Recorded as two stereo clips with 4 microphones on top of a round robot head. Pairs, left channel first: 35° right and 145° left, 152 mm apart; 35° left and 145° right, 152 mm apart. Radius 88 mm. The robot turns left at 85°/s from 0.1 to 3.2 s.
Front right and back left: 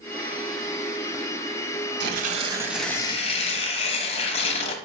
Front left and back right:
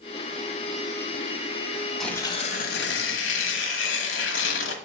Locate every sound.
2.0 s tearing paper: 125° left, 1.1 m; by 4.8 s 20° left, 1.1 m